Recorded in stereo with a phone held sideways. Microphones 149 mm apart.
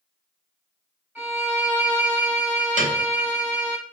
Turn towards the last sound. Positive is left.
turn(degrees=-55)  # may be behind; listen again after turning